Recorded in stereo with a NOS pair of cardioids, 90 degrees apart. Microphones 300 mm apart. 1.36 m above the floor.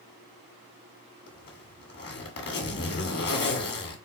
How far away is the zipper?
About 1.9 m.